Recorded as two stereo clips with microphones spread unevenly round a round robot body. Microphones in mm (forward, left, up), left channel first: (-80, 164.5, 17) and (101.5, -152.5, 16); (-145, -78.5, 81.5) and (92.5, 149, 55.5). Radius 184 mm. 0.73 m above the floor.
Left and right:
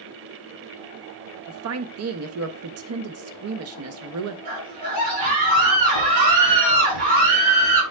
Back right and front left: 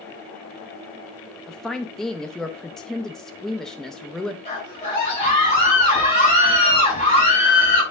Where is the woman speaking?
45° right, 0.6 m.